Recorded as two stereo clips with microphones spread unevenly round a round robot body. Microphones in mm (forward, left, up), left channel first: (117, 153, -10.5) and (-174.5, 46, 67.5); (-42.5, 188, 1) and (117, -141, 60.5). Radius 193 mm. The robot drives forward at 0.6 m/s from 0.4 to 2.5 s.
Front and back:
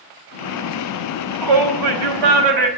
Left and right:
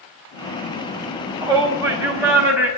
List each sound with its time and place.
1.4 s a shout: 145° right, 4.5 m; by 2.7 s 150° right, 5 m